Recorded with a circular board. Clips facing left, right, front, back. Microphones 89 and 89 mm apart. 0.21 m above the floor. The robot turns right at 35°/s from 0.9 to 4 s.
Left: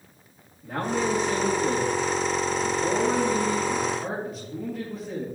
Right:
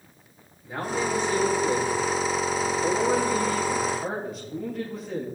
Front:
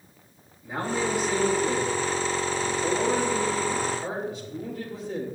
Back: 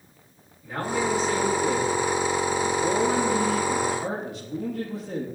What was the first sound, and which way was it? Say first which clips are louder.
A man speaking: left 2 dB, back 1 dB; 70° left.